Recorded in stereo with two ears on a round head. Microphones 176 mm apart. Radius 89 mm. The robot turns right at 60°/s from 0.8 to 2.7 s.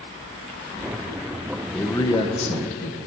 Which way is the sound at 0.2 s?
20° right (ahead or behind).